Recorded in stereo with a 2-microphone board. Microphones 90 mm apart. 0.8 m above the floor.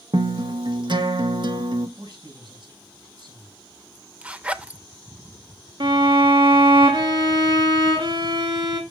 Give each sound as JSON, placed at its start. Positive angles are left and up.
{"t": 0.1, "sound": "a guitar", "side_deg": -60, "distance_m": 1.0}
{"t": 2.0, "sound": "a man speaking", "side_deg": -55, "distance_m": 5.5}
{"t": 4.2, "sound": "a zipper", "side_deg": -15, "distance_m": 0.5}
{"t": 5.8, "sound": "a violin", "side_deg": -60, "distance_m": 1.5}